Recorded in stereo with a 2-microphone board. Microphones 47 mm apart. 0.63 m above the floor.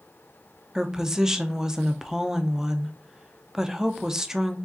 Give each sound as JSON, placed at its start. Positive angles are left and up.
{"t": 0.8, "sound": "a woman speaking", "side_deg": -10, "distance_m": 0.6}